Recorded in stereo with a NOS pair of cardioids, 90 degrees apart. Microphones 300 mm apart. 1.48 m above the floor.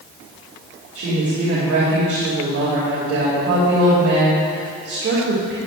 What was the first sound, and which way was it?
A woman speaking, 50° right.